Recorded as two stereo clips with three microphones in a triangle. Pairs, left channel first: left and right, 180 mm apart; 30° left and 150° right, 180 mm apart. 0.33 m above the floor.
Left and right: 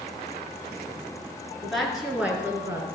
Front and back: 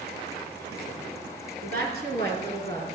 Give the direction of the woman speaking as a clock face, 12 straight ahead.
6 o'clock.